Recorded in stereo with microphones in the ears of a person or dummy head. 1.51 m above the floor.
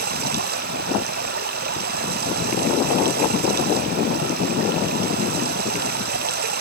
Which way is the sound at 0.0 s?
55° right (ahead or behind).